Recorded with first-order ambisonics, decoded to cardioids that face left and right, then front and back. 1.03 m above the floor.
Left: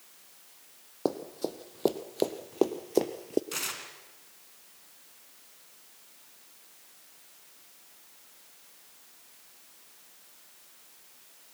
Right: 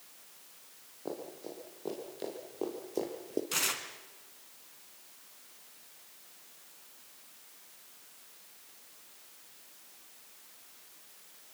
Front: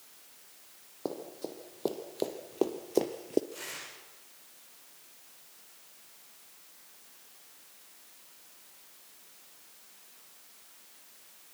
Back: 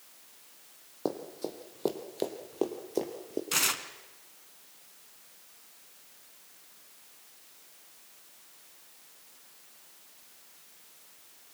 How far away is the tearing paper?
About 2.5 m.